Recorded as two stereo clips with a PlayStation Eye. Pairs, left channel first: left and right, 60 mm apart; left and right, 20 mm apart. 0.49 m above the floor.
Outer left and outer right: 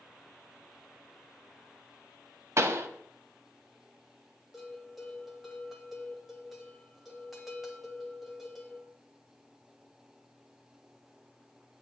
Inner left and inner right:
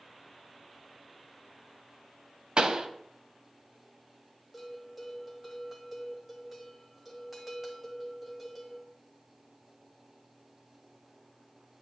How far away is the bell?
About 1.6 m.